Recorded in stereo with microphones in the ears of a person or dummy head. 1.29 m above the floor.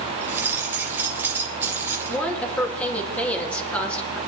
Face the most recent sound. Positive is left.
turn(degrees=10)  # may be behind; listen again after turning